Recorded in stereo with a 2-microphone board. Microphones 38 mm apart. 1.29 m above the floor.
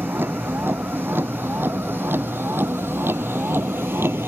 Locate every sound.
0.0 s a vehicle: 65° right (ahead or behind); by 4.3 s 85° right